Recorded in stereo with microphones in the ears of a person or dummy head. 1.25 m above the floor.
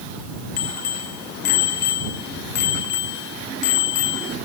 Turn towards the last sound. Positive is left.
turn(degrees=75)  # may be behind; listen again after turning